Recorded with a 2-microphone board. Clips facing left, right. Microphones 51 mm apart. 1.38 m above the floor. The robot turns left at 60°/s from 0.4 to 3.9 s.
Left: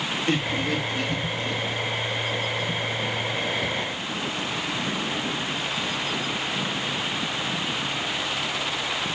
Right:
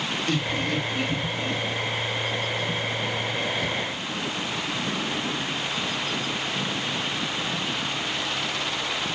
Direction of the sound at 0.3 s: 25° left (ahead or behind).